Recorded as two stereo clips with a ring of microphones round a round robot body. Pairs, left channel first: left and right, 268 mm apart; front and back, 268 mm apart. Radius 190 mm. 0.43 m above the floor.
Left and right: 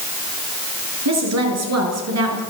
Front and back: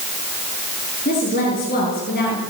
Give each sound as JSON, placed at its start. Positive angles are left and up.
{"t": 1.1, "sound": "a woman speaking", "azimuth_deg": -70, "distance_m": 8.0}